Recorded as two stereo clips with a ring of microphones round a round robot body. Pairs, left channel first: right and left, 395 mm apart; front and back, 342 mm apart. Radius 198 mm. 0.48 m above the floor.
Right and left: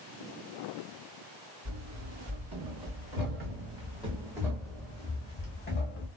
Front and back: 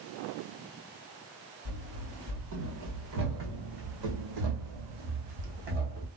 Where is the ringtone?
No ringtone in this recording.